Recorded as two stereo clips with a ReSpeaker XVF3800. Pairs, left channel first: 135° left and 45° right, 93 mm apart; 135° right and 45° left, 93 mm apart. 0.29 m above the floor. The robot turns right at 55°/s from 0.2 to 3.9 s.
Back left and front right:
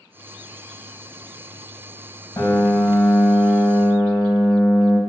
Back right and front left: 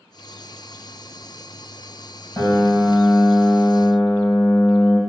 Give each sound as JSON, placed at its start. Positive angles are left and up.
{"t": 2.4, "sound": "a piano", "azimuth_deg": 180, "distance_m": 2.5}